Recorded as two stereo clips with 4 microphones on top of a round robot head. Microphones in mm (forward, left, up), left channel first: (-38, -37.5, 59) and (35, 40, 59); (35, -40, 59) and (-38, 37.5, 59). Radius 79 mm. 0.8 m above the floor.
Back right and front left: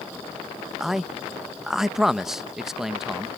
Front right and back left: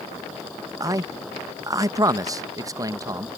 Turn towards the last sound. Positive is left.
turn(degrees=130)